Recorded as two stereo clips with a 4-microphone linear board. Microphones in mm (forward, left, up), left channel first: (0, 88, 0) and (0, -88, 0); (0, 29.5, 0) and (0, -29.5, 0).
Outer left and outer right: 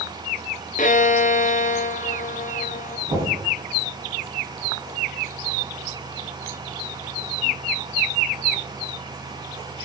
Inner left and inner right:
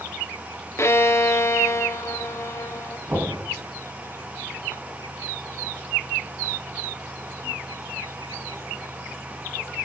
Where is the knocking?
40° right (ahead or behind), 5.5 m.